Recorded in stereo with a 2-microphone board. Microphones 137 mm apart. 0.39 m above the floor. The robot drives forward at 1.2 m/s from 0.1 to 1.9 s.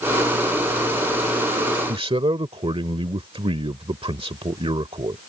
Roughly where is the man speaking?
Right.